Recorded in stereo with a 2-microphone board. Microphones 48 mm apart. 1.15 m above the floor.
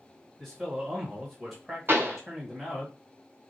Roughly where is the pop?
Right.